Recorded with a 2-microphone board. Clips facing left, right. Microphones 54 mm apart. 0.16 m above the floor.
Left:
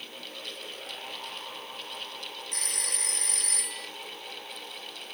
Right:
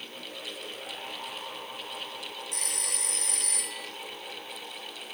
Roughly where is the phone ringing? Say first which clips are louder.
Left 3 dB; left.